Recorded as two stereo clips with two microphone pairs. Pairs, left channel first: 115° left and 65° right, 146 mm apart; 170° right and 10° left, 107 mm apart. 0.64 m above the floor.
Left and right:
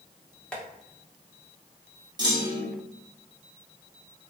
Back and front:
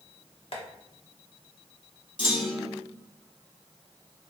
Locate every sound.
0.5 s tapping: 165° right, 0.8 m
2.2 s a clunk: 130° right, 0.8 m